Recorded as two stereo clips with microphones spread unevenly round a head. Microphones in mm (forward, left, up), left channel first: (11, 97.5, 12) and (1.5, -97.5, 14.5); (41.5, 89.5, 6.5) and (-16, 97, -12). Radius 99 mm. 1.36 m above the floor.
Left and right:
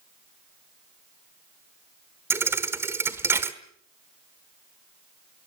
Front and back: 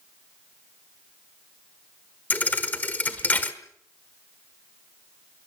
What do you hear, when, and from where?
2.3 s a thud: 20° right, 1.3 m